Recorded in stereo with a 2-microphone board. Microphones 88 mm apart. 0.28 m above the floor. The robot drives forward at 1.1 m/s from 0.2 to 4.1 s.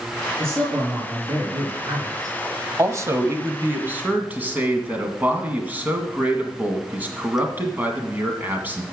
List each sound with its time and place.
0.4 s a man speaking: 30° right (ahead or behind), 6 m; by 2.4 s 45° right (ahead or behind), 4.5 m
2.8 s a man speaking: 35° right (ahead or behind), 1.1 m; by 8.8 s 20° right (ahead or behind), 2.0 m